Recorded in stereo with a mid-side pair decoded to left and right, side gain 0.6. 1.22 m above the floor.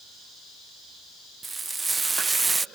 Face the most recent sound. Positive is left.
turn(degrees=-20)